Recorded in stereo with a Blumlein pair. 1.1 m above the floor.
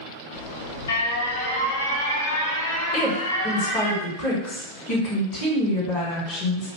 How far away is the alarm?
About 0.7 m.